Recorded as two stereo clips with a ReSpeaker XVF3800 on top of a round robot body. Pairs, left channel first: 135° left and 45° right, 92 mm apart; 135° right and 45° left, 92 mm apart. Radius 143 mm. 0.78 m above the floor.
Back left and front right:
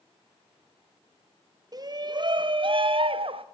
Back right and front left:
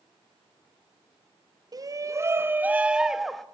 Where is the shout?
Straight ahead, 1.7 m; by 3.5 s 50° right, 1.6 m.